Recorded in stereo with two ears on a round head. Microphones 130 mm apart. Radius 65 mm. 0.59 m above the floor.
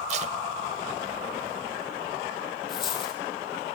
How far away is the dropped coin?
About 4 m.